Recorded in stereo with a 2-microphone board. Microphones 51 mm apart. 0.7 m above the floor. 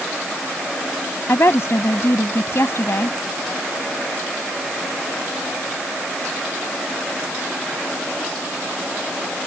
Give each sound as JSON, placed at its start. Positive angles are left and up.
{"t": 1.3, "sound": "a woman speaking", "side_deg": 60}